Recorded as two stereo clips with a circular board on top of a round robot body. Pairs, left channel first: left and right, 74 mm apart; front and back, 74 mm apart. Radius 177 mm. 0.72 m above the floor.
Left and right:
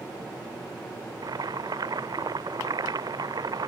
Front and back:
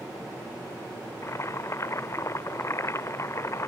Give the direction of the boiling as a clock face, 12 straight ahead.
2 o'clock.